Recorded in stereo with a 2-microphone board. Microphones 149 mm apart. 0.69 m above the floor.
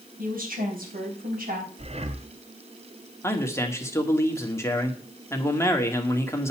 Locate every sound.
0.2 s a woman speaking: 70° right (ahead or behind), 4.5 m
1.8 s breathing: 45° right (ahead or behind), 1.0 m
3.2 s a man speaking: 20° left (ahead or behind), 1.8 m